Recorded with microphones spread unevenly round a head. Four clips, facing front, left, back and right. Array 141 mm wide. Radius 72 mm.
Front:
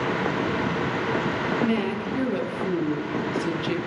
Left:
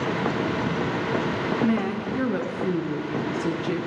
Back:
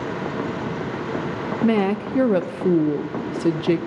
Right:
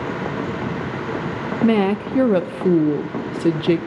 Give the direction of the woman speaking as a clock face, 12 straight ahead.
4 o'clock.